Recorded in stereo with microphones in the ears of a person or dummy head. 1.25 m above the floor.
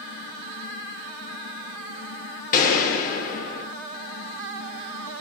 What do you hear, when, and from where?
2.5 s a gunshot: 45° left (ahead or behind), 0.8 m